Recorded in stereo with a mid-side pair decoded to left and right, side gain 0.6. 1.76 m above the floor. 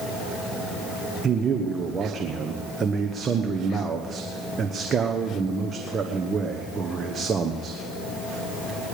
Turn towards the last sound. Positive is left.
turn(degrees=-30)